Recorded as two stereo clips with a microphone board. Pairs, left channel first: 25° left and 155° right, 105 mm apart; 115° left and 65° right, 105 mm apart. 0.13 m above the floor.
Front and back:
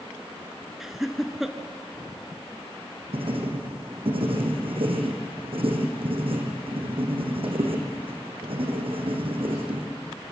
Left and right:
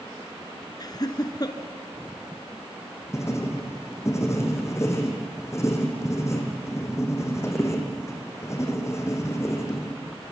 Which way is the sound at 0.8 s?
115° left.